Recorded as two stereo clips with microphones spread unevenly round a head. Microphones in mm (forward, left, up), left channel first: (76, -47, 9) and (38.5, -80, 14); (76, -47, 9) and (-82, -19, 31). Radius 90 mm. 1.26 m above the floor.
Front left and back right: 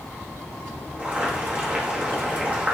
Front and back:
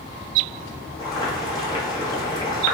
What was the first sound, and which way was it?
Boiling, 75° right.